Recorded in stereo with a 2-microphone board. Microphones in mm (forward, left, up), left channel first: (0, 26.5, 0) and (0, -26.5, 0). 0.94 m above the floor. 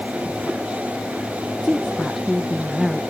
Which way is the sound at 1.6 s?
10° right (ahead or behind).